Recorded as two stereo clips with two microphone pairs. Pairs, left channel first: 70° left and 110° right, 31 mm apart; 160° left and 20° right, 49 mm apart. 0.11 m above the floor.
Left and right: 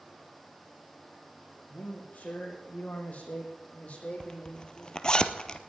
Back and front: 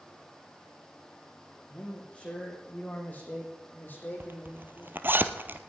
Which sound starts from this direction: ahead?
A zipper, at 4.2 s.